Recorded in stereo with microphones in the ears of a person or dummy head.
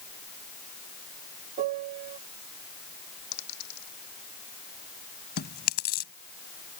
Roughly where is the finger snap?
No finger snap in this recording.